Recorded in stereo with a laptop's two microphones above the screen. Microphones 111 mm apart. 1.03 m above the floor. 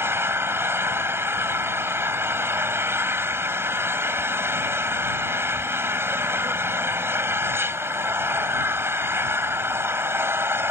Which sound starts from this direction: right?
An engine running, at 0.0 s.